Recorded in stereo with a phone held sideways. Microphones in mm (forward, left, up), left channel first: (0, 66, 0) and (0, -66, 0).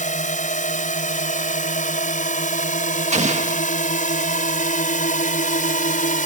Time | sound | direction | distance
0.0 | a drone | 65° left (ahead or behind) | ?
3.1 | an explosion | 60° right (ahead or behind) | ?